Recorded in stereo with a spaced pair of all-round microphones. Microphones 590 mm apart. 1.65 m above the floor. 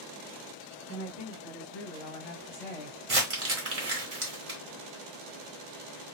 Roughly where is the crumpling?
Right.